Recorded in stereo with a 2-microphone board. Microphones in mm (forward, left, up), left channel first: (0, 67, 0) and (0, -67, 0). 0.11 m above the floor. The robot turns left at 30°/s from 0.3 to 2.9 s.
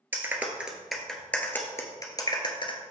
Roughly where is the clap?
Centre.